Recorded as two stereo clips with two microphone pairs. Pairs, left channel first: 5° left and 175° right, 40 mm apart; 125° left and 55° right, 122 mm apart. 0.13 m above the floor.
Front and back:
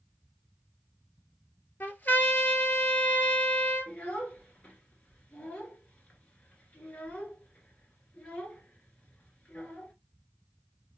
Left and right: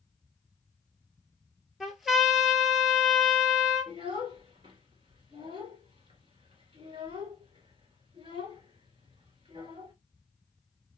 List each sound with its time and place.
1.8 s a trumpet: 30° left, 0.9 m
3.9 s a child speaking: 35° right, 1.7 m